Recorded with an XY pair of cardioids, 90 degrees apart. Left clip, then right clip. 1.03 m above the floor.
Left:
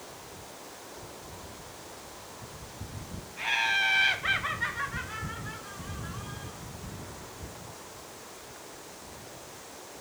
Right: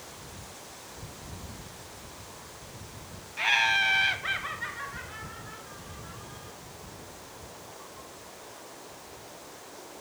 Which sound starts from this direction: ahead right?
Laughter, at 3.4 s.